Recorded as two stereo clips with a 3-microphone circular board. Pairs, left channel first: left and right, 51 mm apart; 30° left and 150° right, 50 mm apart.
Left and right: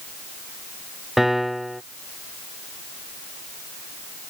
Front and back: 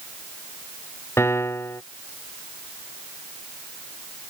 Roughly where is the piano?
Ahead.